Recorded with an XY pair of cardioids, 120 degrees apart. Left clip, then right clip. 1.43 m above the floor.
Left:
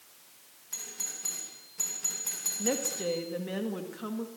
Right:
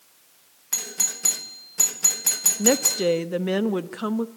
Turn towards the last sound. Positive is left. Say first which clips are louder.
# right 10 dB
turn(degrees=-60)